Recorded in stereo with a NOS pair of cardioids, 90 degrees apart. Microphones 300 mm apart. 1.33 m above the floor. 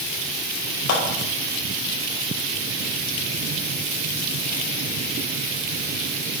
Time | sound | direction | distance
0.9 | a clap | 65° left | 5.5 m